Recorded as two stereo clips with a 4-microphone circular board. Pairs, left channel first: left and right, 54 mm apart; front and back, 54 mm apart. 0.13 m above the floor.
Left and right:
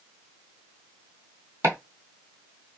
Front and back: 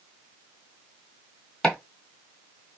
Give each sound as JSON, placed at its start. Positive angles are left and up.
{"t": 1.6, "sound": "chopping", "azimuth_deg": -75, "distance_m": 1.5}